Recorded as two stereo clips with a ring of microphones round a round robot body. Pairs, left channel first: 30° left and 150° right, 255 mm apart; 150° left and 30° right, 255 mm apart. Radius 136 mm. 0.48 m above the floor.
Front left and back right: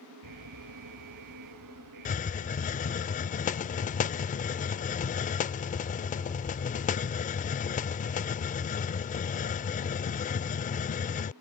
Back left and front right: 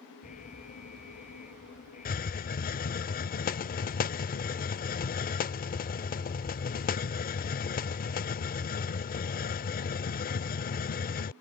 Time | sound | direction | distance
0.2 | an alarm | 150° right | ?
2.0 | a hiss | 90° left | ?